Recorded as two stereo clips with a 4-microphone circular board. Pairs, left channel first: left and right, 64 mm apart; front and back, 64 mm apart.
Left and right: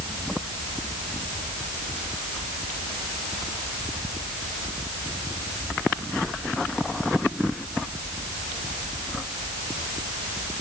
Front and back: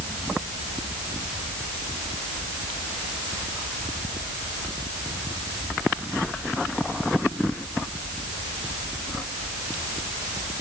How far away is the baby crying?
I don't hear a baby crying.